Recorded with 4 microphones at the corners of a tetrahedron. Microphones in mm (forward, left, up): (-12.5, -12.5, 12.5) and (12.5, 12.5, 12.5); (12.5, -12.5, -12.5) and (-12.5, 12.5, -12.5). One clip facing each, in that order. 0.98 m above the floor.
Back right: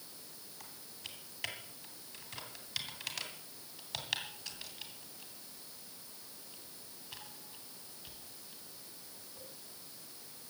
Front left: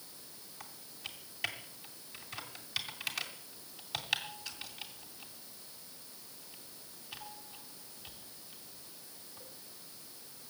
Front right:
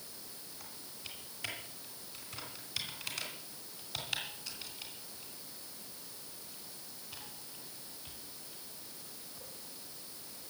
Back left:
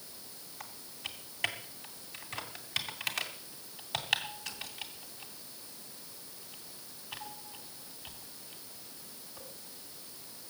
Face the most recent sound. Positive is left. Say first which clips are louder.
# front left 3 dB, back left 8 dB
turn(degrees=125)